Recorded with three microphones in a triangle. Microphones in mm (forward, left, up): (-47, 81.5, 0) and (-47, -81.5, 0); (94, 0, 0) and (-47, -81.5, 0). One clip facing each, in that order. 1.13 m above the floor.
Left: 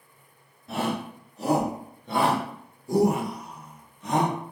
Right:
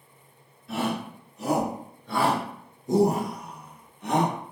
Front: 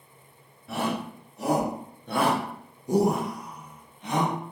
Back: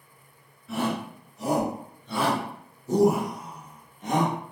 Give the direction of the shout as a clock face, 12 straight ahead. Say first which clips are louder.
Even, back 1 dB; 11 o'clock.